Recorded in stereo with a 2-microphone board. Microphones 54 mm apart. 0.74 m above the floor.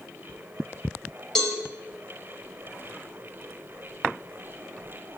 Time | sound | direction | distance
1.4 | a cowbell | 10° left (ahead or behind) | 5 m